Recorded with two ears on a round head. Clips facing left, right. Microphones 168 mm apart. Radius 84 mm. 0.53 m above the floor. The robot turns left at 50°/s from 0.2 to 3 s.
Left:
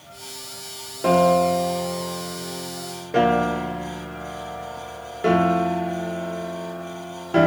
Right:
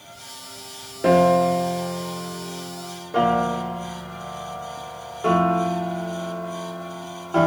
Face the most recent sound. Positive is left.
turn(degrees=20)  # may be behind; listen again after turning